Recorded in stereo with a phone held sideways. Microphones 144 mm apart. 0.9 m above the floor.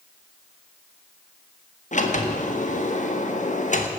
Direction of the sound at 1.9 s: 65° left (ahead or behind).